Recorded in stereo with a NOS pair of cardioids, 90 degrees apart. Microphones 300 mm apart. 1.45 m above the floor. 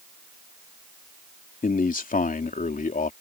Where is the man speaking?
25° left.